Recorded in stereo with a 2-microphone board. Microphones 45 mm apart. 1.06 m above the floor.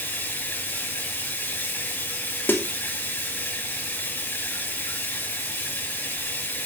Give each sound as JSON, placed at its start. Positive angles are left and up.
{"t": 0.0, "sound": "running water", "side_deg": 45, "distance_m": 4.5}
{"t": 2.5, "sound": "a snare drum", "side_deg": 55, "distance_m": 2.5}